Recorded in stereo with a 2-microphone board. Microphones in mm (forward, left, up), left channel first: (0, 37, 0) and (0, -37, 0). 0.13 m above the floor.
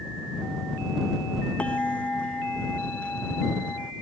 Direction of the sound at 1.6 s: 15° left (ahead or behind).